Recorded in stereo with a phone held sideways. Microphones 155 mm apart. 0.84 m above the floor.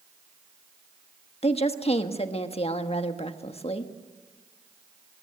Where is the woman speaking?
40° left (ahead or behind), 1.3 m.